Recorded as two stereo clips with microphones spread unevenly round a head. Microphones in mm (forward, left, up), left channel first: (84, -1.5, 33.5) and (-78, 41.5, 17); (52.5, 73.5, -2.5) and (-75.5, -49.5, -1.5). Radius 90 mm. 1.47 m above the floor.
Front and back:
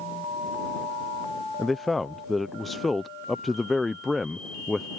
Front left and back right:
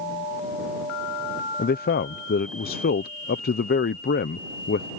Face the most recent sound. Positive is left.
turn(degrees=75)